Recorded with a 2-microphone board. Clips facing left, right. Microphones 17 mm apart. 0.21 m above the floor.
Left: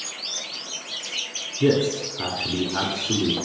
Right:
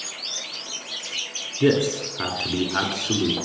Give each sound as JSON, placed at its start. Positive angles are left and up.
{"t": 1.6, "sound": "a man speaking", "side_deg": -35, "distance_m": 2.0}